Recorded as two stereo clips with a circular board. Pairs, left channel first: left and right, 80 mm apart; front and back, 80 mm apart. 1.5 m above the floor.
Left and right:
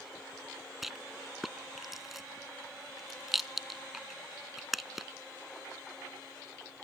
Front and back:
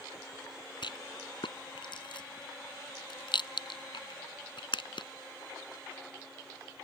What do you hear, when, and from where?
0.8 s a rattle: 5° right